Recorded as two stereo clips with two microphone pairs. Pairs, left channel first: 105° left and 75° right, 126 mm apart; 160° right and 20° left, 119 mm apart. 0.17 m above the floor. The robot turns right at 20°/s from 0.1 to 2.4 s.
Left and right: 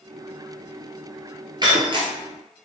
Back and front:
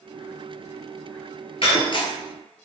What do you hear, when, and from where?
1.6 s breaking glass: 130° right, 1.1 m; by 2.1 s 120° right, 1.1 m